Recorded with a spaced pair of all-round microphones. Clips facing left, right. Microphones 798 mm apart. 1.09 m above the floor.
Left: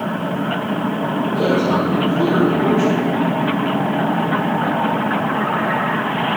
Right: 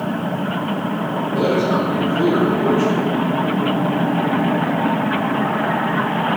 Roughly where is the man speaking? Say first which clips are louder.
Even; left.